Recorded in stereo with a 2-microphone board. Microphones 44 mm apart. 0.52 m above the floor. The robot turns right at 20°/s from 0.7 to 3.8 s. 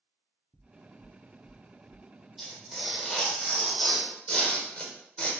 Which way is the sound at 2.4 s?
5° right (ahead or behind).